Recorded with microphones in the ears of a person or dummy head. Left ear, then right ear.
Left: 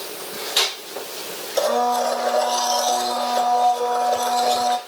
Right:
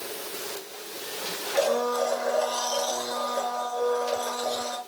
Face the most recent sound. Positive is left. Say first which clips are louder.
# left 5 dB
turn(degrees=40)  # may be behind; listen again after turning